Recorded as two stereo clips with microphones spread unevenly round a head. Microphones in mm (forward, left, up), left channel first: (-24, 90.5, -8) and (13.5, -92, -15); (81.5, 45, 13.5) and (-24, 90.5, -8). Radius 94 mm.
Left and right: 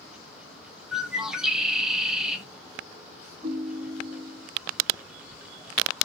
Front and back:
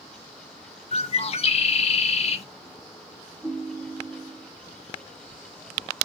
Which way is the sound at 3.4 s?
120° right.